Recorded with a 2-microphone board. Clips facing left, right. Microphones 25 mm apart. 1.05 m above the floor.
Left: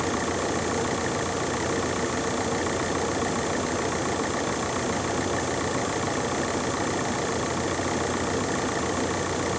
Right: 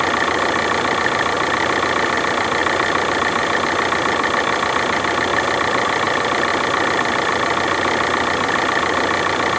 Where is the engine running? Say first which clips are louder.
Right 9 dB; 45° right (ahead or behind).